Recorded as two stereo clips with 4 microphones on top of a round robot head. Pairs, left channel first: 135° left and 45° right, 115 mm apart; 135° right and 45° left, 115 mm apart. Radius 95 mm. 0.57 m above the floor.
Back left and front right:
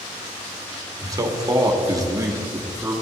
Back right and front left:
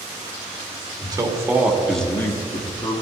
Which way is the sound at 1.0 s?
5° left.